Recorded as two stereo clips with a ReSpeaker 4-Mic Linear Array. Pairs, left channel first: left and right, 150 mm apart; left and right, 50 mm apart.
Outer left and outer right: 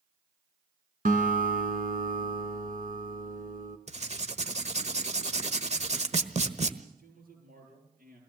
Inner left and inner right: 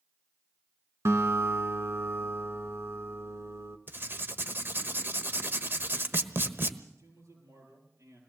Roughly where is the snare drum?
No snare drum in this recording.